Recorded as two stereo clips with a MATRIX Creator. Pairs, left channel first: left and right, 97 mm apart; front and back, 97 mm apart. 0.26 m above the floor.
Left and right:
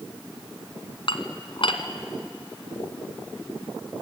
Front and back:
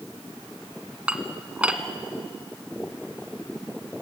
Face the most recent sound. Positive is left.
turn(degrees=105)